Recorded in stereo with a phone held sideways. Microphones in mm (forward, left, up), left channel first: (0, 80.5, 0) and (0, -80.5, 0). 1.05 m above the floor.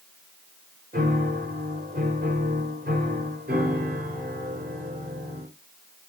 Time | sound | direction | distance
0.9 | a piano | 75° right (ahead or behind) | 3.5 m